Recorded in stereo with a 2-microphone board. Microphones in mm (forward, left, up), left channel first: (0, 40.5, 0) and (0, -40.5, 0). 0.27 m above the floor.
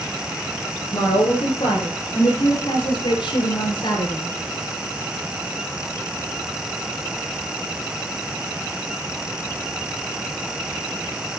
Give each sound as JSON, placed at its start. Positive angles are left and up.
{"t": 0.9, "sound": "a woman speaking", "side_deg": 80, "distance_m": 6.5}